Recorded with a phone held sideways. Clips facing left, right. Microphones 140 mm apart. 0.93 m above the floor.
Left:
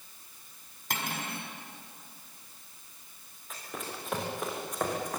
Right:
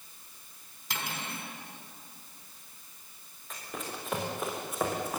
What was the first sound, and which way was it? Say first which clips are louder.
Cutlery clinking: left 2 dB; 55° left (ahead or behind).